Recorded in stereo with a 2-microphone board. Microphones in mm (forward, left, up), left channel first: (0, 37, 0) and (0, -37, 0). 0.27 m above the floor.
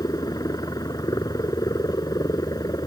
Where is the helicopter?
60° left (ahead or behind).